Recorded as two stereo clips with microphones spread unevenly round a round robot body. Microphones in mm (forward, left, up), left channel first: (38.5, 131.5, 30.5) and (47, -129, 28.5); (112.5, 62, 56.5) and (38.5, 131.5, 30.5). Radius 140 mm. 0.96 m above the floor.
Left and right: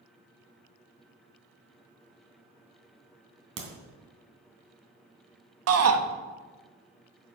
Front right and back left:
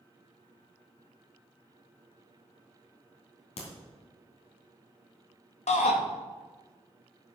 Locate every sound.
3.6 s a crack: 50° right, 3 m
5.7 s a shout: 65° right, 1.5 m